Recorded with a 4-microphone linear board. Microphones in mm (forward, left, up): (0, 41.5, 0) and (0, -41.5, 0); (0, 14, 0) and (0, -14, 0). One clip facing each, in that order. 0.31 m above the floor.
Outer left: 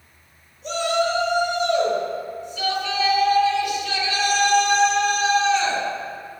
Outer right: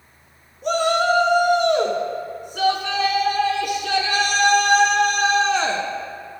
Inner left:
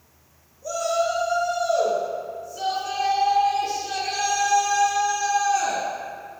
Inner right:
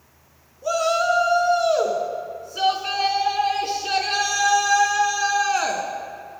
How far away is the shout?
About 3.5 m.